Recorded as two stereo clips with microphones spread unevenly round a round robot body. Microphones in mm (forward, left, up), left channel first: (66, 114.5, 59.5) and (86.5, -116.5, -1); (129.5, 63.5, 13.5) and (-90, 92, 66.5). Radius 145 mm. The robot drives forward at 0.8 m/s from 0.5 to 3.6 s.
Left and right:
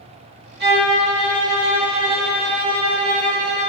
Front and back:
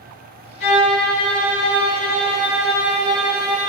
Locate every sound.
0.6 s a violin: 45° right, 4 m; by 3.7 s 80° right, 3 m